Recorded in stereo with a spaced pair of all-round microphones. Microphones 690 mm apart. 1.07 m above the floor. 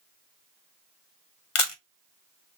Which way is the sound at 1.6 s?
50° left (ahead or behind).